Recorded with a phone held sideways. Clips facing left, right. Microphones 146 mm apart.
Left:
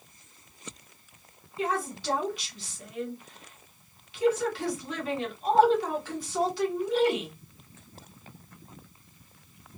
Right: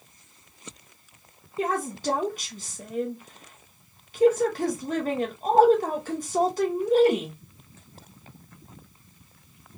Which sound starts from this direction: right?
A woman speaking, at 1.6 s.